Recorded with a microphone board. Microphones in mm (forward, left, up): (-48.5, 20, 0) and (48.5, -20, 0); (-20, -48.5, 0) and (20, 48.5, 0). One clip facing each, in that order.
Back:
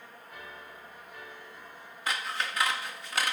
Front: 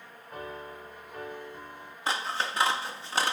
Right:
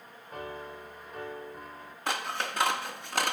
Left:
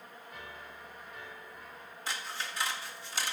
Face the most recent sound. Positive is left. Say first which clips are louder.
# front 3 dB, right 8 dB
turn(degrees=-85)